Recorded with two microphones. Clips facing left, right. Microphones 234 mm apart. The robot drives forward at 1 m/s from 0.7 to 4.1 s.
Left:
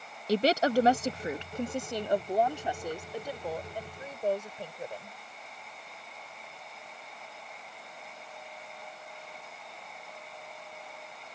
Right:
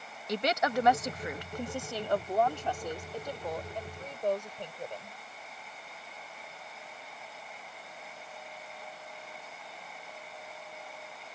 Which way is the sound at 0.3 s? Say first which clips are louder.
Left 5 dB; 35° left (ahead or behind).